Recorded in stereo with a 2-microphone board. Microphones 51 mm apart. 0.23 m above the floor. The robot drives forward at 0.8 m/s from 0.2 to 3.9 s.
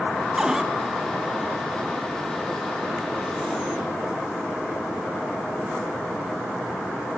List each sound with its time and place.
0.4 s a cupboard door: 15° right (ahead or behind), 0.8 m; by 0.7 s 10° right (ahead or behind), 1.0 m